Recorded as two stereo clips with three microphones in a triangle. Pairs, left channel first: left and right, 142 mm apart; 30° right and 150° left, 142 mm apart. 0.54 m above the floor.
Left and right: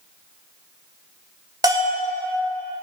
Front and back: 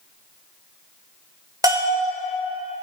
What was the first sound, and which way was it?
A bell, 150° right.